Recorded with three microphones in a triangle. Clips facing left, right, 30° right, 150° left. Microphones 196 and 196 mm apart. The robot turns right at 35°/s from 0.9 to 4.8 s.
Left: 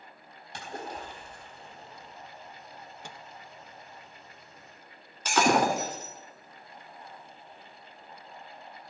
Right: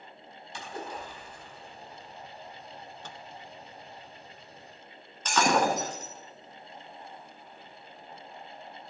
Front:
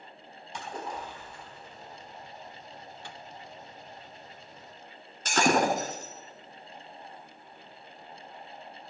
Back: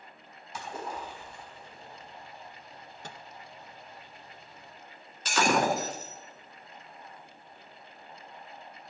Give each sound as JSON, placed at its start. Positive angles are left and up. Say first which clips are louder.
{"t": 0.5, "sound": "a splash", "louder": "even, even", "azimuth_deg": 65, "distance_m": 4.5}
{"t": 3.0, "sound": "a microwave", "louder": "right 1 dB, back 3 dB", "azimuth_deg": 160, "distance_m": 0.6}
{"t": 5.2, "sound": "breaking glass", "louder": "left 1 dB, front 1 dB", "azimuth_deg": 10, "distance_m": 2.5}